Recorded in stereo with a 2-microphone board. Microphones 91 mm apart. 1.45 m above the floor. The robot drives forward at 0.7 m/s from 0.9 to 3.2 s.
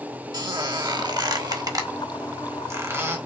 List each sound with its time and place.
0.3 s a squeak: 50° right (ahead or behind), 1.3 m; by 3.2 s 25° right (ahead or behind), 2.5 m